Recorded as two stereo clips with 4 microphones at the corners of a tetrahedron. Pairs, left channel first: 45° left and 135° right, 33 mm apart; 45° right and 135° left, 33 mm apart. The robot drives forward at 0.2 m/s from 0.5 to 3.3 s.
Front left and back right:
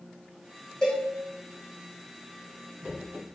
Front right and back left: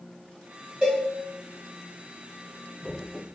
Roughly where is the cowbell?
Left.